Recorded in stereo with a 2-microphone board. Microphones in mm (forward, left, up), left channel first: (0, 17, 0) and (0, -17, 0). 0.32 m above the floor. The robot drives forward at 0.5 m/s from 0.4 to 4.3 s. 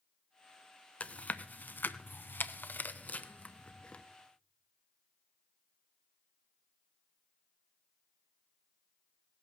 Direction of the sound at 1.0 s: 45° left (ahead or behind).